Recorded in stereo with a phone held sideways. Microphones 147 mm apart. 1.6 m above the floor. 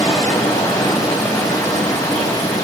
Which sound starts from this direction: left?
Running water, at 0.0 s.